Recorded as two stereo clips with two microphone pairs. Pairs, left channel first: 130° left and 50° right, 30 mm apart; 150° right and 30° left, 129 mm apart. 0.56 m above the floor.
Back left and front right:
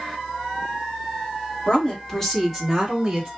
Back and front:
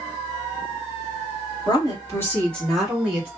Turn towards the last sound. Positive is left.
turn(degrees=-10)